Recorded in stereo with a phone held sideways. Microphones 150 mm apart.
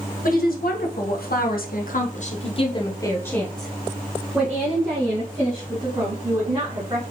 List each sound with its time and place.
0.2 s a woman speaking: 75° left (ahead or behind), 1.6 m; by 7.0 s 25° right (ahead or behind), 3 m